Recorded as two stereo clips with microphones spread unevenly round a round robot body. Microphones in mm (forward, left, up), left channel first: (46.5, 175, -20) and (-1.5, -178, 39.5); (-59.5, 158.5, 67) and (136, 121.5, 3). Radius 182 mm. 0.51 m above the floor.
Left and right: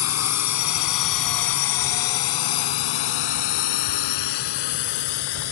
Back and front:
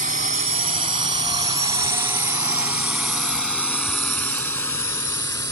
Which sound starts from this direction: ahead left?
A drone, at 0.0 s.